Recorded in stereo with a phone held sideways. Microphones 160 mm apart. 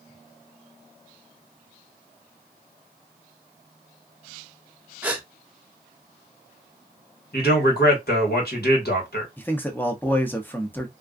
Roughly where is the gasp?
Centre.